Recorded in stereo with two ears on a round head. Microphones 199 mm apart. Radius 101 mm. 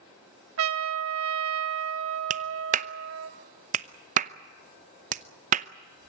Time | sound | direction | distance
0.6 | a trumpet | 60° right (ahead or behind) | 1.6 m
2.3 | a clap | 35° right (ahead or behind) | 0.7 m